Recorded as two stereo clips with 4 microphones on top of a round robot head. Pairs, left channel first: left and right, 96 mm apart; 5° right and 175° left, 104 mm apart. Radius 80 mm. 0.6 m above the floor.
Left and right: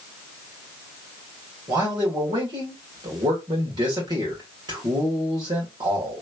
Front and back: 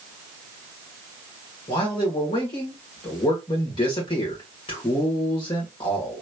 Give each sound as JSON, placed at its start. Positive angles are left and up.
{"t": 1.7, "sound": "a man speaking", "azimuth_deg": -45, "distance_m": 1.7}